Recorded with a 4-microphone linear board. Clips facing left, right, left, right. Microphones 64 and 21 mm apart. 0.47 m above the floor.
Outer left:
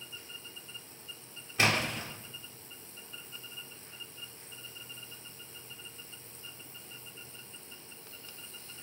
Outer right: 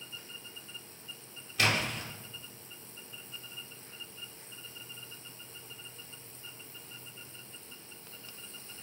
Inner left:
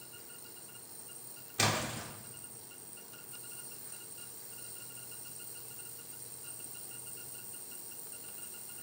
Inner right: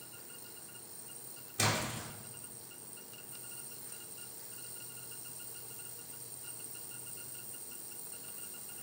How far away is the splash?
About 0.7 m.